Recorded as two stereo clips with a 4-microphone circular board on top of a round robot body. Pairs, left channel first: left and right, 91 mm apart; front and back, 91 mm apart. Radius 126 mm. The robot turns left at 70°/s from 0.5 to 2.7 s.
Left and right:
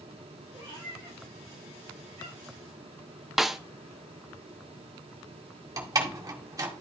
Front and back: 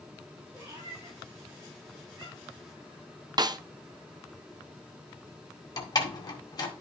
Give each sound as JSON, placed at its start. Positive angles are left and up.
{"t": 0.5, "sound": "a cat meowing", "azimuth_deg": -105, "distance_m": 5.0}
{"t": 3.4, "sound": "a snare drum", "azimuth_deg": -175, "distance_m": 0.7}
{"t": 5.8, "sound": "a door slam", "azimuth_deg": -40, "distance_m": 2.0}